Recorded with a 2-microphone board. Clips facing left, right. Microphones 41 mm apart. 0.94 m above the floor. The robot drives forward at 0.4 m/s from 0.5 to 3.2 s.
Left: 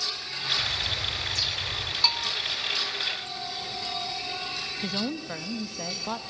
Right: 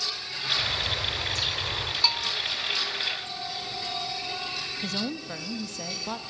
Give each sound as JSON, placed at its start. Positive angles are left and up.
{"t": 0.6, "sound": "a bird", "side_deg": -35, "distance_m": 2.5}
{"t": 2.0, "sound": "a bell", "side_deg": 0, "distance_m": 1.0}
{"t": 4.8, "sound": "a woman speaking", "side_deg": 10, "distance_m": 1.1}